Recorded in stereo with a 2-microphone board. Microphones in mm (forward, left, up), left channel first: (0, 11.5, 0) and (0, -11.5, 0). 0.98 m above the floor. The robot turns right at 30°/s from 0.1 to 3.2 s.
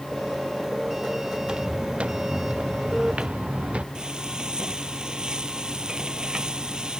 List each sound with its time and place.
1.4 s footsteps: 40° right (ahead or behind); by 3.9 s 70° right (ahead or behind)
4.0 s frying: 40° right (ahead or behind)